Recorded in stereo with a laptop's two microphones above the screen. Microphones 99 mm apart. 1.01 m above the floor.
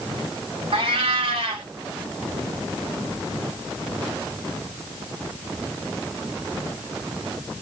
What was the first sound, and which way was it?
A cat meowing, 75° right (ahead or behind).